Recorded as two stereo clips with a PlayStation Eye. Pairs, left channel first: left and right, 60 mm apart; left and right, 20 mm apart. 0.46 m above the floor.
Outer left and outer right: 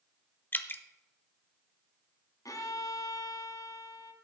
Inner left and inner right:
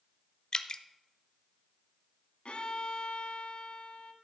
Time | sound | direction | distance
0.5 | dripping | 35° left (ahead or behind) | 0.6 m
2.5 | a violin | 75° left (ahead or behind) | 1.1 m